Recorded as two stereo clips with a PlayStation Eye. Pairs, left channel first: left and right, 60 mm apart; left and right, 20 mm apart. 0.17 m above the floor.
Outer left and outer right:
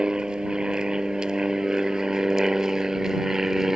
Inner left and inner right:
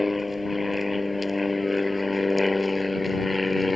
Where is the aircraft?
15° right (ahead or behind); by 3.8 s 5° right (ahead or behind).